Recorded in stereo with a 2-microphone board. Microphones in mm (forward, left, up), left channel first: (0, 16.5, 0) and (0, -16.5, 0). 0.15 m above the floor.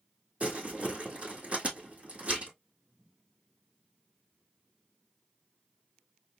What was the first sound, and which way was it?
Crumpling, 45° right (ahead or behind).